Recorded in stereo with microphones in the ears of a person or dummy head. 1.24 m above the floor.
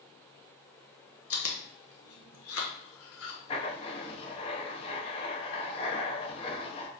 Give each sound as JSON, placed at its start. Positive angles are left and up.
{"t": 1.3, "sound": "chewing", "side_deg": 65, "distance_m": 1.0}
{"t": 3.5, "sound": "writing", "side_deg": 35, "distance_m": 0.7}